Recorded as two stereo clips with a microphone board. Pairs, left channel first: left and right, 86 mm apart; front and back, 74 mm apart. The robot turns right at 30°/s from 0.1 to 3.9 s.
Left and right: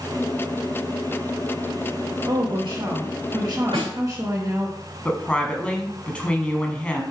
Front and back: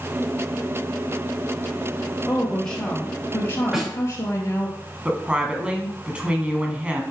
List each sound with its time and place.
2.2 s a woman speaking: 95° right, 3.5 m; by 4.7 s 45° right, 3.5 m
3.7 s a snare drum: 100° right, 4 m; by 3.9 s 95° right, 4 m
5.0 s a woman speaking: 135° left, 1.3 m